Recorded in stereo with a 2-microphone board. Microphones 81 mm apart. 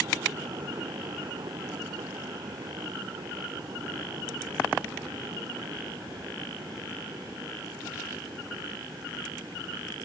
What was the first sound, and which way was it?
Only background noise.